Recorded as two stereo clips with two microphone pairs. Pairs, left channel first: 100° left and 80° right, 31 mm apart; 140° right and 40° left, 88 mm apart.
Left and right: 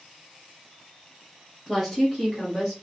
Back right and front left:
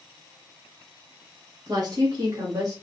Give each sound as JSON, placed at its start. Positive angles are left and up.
{"t": 1.7, "sound": "a woman speaking", "azimuth_deg": 0, "distance_m": 1.4}